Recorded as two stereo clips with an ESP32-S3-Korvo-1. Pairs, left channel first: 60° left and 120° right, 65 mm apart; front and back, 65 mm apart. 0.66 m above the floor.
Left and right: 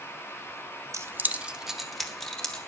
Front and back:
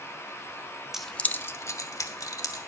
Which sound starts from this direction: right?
Keys jangling, at 0.9 s.